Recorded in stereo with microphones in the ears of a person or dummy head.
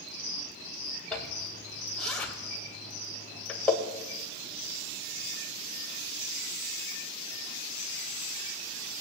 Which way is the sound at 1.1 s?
5° left (ahead or behind).